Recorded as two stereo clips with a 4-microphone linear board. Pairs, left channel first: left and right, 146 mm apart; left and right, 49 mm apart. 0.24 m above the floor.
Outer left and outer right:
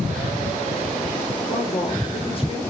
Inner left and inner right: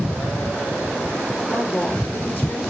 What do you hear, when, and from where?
1.4 s a woman speaking: 40° left (ahead or behind), 6 m